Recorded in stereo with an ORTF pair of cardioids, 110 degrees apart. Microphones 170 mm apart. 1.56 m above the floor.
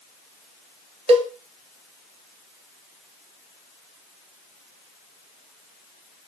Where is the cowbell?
40° right, 0.6 m.